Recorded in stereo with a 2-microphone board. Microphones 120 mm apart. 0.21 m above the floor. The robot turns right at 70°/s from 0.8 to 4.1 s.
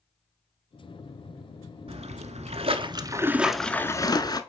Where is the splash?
120° right, 0.7 m; by 4.4 s 35° left, 0.7 m.